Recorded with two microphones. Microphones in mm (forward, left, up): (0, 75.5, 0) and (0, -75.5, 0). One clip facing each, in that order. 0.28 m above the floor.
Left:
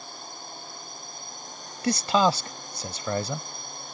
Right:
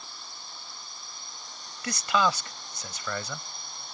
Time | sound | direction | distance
0.0 | a drone | 50° left (ahead or behind) | ?
1.8 | a man speaking | 35° left (ahead or behind) | ?